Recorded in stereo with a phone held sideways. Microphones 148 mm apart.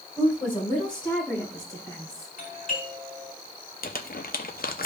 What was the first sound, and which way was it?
A woman speaking, 35° left (ahead or behind).